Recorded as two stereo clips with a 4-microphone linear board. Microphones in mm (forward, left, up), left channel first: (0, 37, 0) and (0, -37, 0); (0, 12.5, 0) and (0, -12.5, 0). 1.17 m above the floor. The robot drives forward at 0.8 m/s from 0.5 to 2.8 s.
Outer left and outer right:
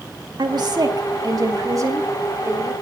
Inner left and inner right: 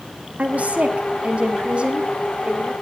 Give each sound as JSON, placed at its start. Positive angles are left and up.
{"t": 0.4, "sound": "a woman speaking", "side_deg": -70, "distance_m": 2.0}